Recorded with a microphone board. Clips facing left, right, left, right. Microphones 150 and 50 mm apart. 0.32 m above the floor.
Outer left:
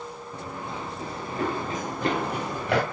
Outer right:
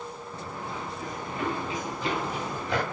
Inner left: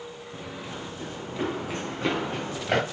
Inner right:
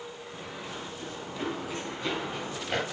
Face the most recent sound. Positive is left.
turn(degrees=70)  # may be behind; listen again after turning